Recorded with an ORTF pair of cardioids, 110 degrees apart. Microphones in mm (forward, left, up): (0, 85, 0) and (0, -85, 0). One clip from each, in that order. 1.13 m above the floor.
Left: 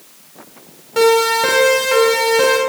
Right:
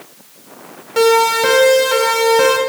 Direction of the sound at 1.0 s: 5° right.